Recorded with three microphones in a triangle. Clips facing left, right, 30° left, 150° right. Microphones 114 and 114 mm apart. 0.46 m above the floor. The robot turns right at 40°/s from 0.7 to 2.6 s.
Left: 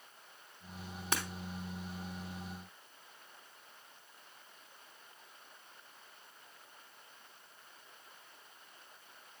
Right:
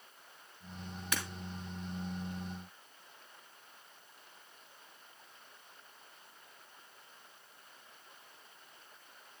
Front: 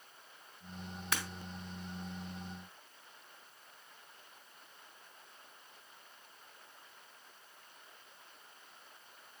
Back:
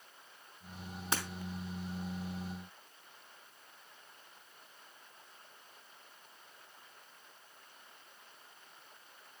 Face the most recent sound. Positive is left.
turn(degrees=-150)